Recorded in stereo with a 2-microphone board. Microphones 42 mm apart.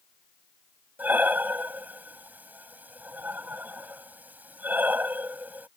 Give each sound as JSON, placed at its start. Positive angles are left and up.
{"t": 1.0, "sound": "breathing", "side_deg": -45}